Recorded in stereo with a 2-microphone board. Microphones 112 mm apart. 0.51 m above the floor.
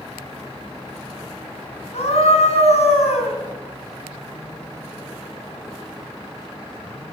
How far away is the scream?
About 4 m.